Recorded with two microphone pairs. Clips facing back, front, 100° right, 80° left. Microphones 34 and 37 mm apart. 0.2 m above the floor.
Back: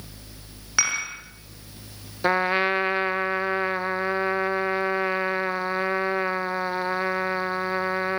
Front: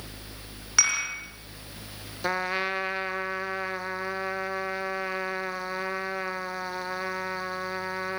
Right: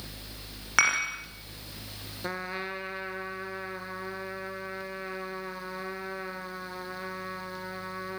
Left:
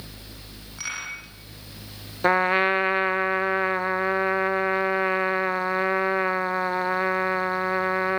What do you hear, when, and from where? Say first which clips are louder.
0.8 s dishes clattering: back 1 dB, right 9 dB; 105° right, 7.5 m
2.2 s a trumpet: back 6 dB, left 15 dB; 115° left, 0.7 m